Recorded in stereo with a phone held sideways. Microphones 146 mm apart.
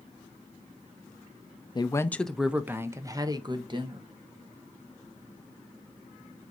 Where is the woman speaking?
30° left (ahead or behind), 0.5 m; by 4.1 s 35° right (ahead or behind), 1.4 m.